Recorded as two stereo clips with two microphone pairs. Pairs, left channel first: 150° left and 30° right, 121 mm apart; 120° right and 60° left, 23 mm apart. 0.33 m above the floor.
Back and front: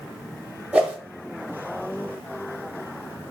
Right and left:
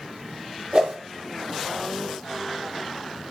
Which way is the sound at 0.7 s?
40° left.